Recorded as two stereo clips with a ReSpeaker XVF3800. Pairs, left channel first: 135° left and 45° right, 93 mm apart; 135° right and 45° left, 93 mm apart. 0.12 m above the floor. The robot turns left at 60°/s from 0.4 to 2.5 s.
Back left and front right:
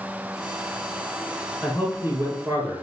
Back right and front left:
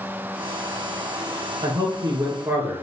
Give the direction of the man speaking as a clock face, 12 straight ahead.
11 o'clock.